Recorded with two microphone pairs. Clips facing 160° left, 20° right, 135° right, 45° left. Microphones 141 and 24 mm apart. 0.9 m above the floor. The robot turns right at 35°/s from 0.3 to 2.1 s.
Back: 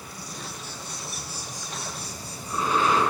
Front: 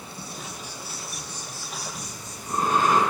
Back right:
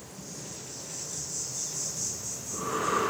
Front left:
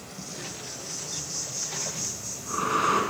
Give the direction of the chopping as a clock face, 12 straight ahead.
I don't hear chopping.